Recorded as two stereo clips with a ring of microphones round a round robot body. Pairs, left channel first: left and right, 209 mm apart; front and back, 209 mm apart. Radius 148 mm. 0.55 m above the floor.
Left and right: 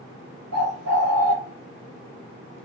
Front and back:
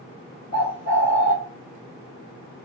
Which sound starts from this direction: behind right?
A bird, at 0.5 s.